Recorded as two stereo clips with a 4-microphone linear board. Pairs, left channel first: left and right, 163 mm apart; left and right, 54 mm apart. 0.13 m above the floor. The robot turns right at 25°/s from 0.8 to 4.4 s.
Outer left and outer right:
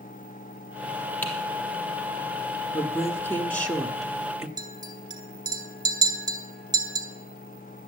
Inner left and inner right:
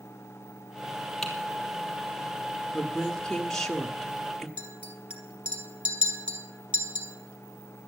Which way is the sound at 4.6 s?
25° right (ahead or behind).